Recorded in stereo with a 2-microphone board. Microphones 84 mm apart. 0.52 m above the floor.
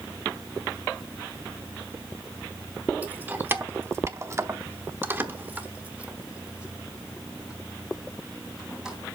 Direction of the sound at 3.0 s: 20° right (ahead or behind).